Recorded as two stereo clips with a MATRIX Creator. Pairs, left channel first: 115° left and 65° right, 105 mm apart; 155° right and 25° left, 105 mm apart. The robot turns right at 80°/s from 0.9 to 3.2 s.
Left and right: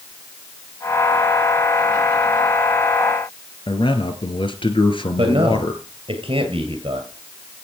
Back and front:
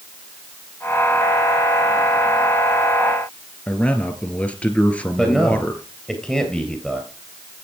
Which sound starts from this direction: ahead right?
A man speaking, at 5.2 s.